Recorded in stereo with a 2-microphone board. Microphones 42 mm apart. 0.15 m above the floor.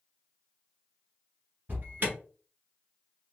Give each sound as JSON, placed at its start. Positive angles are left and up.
{"t": 1.7, "sound": "an alarm", "side_deg": -45, "distance_m": 1.5}